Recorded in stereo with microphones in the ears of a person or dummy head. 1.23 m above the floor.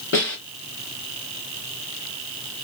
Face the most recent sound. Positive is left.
turn(degrees=55)  # may be behind; listen again after turning